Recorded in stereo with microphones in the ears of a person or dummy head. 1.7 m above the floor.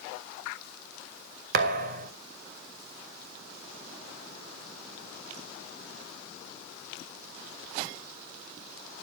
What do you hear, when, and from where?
1.5 s a thud: 45° right (ahead or behind), 1.3 m